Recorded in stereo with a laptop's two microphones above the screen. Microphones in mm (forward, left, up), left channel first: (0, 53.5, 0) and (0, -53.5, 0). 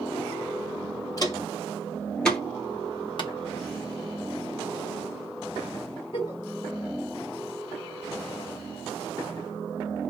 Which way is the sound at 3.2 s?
50° left (ahead or behind).